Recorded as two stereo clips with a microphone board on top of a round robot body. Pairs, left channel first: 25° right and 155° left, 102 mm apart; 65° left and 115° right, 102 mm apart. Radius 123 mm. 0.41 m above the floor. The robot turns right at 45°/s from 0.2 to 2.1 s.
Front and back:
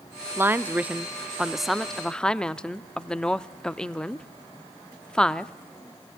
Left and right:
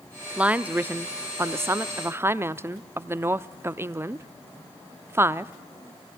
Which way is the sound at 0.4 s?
175° right.